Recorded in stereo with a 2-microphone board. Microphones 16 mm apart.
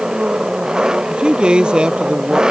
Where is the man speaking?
80° right.